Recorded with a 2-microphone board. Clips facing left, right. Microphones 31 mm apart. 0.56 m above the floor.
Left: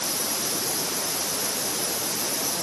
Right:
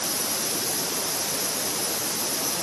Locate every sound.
Only background noise.